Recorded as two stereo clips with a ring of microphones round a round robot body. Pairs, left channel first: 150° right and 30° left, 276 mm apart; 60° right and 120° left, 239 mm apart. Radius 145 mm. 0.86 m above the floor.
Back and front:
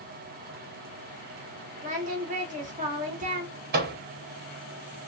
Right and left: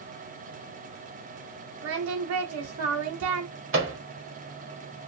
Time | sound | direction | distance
1.8 | singing | 95° left | 0.8 m
3.7 | a microwave | 85° left | 1.0 m